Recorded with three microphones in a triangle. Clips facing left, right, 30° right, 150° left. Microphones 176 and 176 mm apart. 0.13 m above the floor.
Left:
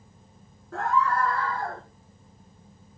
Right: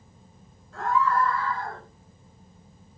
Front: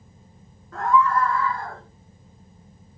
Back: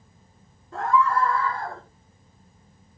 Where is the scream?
90° left, 7.5 m; by 1.8 s 100° left, 6.5 m.